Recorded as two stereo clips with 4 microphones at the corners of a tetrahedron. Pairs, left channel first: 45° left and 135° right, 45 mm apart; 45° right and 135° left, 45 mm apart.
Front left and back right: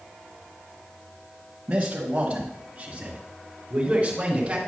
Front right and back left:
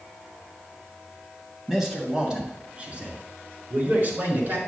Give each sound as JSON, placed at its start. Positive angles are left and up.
{"t": 1.7, "sound": "a man speaking", "azimuth_deg": -150, "distance_m": 1.4}